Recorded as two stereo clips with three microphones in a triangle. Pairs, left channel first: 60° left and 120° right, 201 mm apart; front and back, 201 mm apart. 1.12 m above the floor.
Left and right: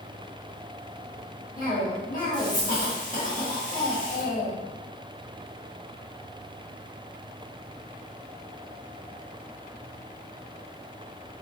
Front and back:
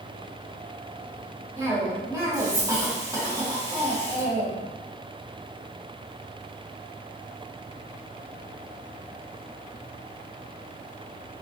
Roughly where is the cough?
Left.